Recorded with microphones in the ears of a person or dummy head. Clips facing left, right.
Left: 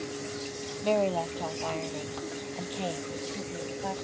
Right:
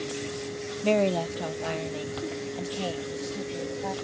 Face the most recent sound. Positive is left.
turn(degrees=5)  # may be behind; listen again after turning